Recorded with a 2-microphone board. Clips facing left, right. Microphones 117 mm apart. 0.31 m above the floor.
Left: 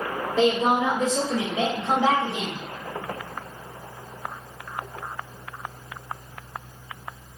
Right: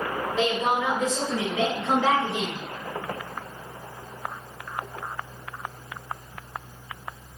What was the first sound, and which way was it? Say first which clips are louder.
A woman speaking: left 5 dB; 30° left (ahead or behind).